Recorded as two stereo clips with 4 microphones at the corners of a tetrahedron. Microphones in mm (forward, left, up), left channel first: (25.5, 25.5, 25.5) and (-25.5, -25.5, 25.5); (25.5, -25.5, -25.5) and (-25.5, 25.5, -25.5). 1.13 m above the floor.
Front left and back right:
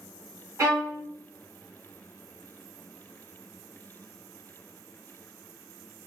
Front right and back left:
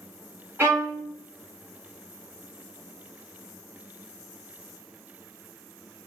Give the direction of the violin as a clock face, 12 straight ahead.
6 o'clock.